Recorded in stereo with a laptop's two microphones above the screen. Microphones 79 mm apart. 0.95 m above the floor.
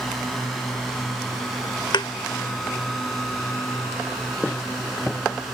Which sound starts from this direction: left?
A thud, at 1.9 s.